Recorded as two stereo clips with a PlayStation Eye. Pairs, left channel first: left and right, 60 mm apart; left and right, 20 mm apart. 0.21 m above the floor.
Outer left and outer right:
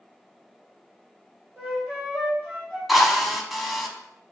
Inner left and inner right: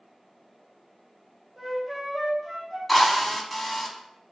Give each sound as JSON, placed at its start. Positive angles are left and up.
{"t": 1.6, "sound": "a flute", "side_deg": -15, "distance_m": 3.0}
{"t": 2.9, "sound": "a drill", "side_deg": -5, "distance_m": 0.9}